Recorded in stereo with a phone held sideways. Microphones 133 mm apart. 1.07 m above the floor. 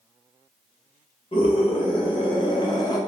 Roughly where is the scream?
Left.